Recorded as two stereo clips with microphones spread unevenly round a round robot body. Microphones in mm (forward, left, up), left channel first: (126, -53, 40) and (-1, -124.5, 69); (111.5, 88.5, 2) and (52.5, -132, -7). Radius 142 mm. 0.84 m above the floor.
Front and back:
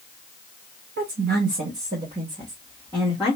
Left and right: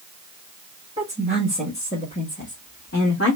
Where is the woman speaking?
Straight behind, 0.9 m; by 3.4 s 120° left, 1.5 m.